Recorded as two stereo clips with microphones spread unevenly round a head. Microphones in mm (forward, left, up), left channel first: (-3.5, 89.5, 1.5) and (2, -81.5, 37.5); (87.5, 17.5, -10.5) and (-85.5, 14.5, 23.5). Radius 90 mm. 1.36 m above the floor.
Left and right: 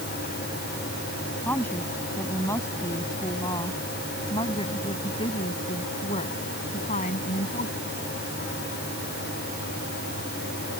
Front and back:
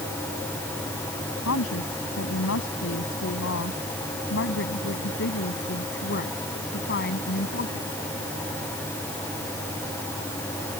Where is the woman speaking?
10° left; by 7.9 s 40° left.